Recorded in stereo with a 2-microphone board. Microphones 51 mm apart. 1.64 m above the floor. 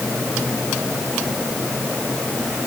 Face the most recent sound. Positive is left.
No sound to turn to.